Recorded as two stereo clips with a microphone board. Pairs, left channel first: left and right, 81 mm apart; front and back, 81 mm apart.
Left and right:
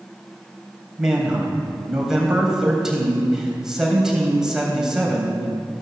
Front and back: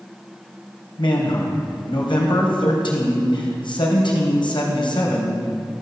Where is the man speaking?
5° right, 3.5 m.